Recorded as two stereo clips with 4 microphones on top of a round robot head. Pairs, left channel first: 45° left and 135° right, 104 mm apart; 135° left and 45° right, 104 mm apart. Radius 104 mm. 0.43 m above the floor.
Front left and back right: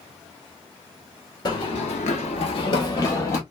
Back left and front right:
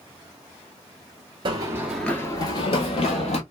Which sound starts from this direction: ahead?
Running footsteps, at 1.4 s.